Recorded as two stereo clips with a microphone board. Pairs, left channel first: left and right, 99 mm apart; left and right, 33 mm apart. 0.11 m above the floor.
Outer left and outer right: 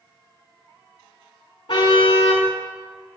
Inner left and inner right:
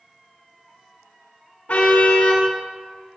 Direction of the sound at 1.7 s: 55° left (ahead or behind).